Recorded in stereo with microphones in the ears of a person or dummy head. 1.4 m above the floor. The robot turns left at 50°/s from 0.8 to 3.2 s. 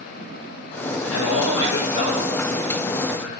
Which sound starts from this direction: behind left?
A man speaking, at 0.9 s.